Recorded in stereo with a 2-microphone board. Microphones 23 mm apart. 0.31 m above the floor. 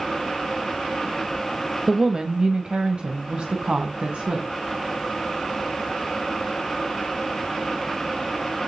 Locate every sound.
1.9 s a woman speaking: 20° right (ahead or behind), 1.1 m; by 4.5 s 55° right (ahead or behind), 2 m